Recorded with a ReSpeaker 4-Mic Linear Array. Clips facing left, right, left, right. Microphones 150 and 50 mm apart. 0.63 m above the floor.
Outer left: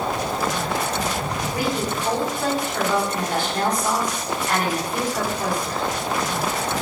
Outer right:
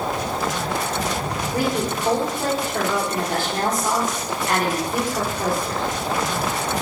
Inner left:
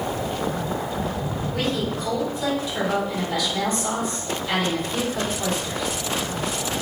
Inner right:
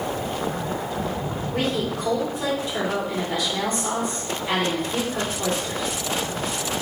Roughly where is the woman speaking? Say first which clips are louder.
Outer right 3 dB, inner right 1 dB; right.